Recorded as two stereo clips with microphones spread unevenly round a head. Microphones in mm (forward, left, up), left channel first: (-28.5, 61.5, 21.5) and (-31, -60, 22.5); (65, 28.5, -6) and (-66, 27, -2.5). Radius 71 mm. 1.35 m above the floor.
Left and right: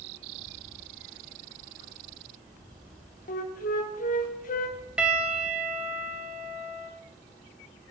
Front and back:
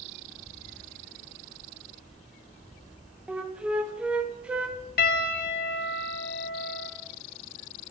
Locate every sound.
3.3 s a flute: 100° left, 1.3 m
5.0 s a piano: 10° right, 1.1 m